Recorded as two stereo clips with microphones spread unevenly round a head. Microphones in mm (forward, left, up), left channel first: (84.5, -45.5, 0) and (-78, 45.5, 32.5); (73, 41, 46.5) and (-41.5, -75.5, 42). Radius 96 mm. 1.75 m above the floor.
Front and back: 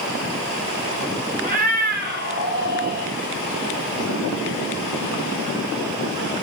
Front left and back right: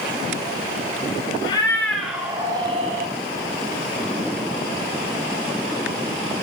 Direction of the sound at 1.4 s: 115° left.